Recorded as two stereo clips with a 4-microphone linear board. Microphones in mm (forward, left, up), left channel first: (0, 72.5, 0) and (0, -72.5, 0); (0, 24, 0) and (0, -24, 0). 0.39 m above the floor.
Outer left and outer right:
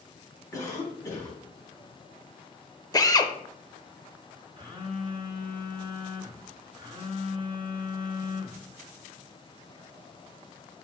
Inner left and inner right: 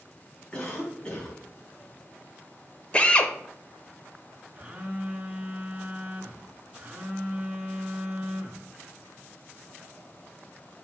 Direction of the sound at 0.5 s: 25° left (ahead or behind).